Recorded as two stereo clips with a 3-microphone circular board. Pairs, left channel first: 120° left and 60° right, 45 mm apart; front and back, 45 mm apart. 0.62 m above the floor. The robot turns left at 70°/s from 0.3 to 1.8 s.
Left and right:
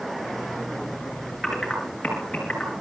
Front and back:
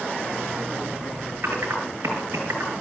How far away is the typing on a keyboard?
About 5.5 m.